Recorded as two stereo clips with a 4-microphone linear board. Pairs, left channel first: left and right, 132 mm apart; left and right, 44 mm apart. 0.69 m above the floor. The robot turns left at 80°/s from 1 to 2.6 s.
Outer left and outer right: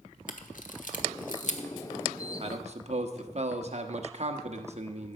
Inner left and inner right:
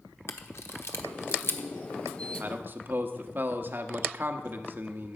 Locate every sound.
0.3 s a camera shutter: 70° left (ahead or behind), 1.1 m; by 1.7 s 45° left (ahead or behind), 1.1 m
2.4 s a man speaking: 45° right (ahead or behind), 1.0 m; by 5.2 s 50° right (ahead or behind), 1.0 m